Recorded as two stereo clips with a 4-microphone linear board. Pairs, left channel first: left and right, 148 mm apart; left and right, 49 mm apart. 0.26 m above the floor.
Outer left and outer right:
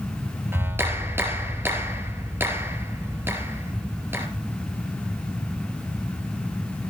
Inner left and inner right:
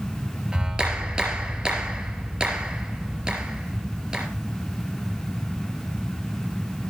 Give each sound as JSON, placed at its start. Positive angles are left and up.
{"t": 0.5, "sound": "a clap", "side_deg": -15, "distance_m": 4.0}